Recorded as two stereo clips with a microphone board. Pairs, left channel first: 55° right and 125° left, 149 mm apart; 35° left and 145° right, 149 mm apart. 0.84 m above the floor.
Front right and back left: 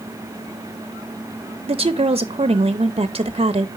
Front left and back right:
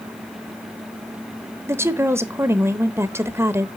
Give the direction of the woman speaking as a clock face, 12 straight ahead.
7 o'clock.